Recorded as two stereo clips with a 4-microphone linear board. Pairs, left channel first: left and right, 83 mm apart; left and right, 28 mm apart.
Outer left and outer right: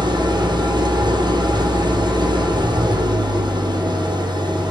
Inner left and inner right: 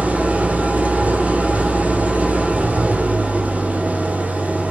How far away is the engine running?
About 2 m.